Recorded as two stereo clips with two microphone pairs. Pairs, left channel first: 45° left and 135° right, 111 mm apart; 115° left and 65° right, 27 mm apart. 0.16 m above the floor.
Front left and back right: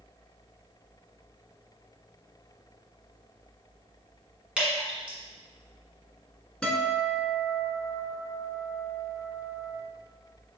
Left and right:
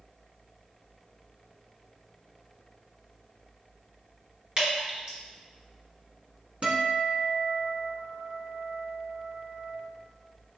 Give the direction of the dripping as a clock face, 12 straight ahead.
2 o'clock.